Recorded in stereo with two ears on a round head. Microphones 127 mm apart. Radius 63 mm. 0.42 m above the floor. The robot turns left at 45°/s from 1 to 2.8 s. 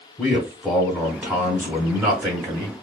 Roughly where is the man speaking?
Ahead.